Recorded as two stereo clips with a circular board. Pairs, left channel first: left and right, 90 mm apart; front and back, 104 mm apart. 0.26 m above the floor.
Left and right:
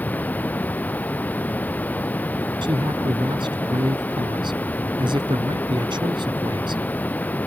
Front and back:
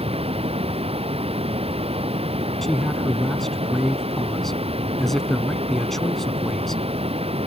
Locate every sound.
0.0 s running water: 160° left
2.6 s a man speaking: 85° right